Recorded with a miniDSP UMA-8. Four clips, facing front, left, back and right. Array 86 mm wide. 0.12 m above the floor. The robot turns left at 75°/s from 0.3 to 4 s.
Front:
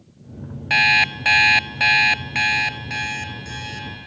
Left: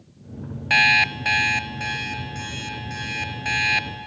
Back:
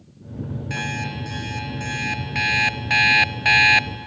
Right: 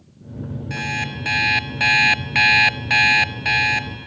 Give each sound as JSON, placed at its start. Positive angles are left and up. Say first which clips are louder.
{"t": 0.7, "sound": "an alarm clock", "louder": "left 9 dB, front 12 dB", "azimuth_deg": 50, "distance_m": 0.7}